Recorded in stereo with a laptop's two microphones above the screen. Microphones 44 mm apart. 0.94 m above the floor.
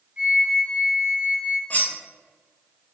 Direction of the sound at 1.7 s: 35° left (ahead or behind).